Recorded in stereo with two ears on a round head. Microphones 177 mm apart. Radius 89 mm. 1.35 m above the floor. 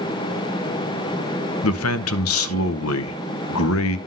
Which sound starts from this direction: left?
A man speaking, at 1.6 s.